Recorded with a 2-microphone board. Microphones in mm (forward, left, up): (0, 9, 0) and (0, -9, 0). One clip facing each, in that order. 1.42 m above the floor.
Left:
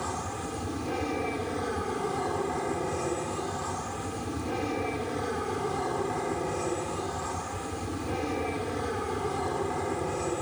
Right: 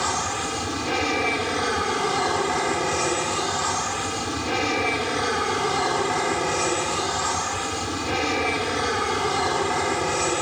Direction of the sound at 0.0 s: 60° right (ahead or behind).